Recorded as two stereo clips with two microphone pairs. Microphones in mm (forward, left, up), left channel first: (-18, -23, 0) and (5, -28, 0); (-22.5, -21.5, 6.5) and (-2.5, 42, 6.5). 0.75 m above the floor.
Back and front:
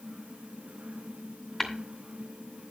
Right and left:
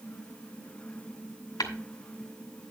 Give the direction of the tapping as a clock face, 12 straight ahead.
4 o'clock.